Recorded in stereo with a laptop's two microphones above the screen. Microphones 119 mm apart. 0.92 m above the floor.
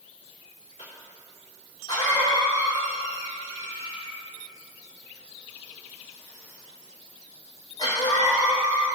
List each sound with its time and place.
0.8 s a cough: 35° left (ahead or behind), 3.5 m